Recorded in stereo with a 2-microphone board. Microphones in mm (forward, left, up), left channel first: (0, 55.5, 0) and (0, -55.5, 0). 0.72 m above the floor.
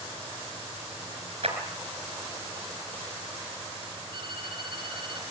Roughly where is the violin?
Right.